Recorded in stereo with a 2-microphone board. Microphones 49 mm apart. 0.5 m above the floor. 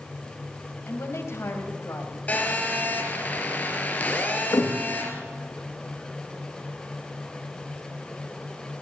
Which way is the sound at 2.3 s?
30° left (ahead or behind).